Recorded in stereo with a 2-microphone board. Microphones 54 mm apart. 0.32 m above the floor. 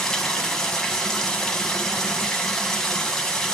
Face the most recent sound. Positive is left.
turn(degrees=10)  # may be behind; listen again after turning